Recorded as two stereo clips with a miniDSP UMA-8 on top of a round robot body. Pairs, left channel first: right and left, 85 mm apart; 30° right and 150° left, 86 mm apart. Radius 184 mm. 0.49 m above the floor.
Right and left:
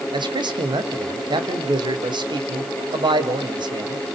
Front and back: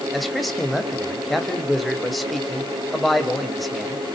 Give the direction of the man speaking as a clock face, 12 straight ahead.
10 o'clock.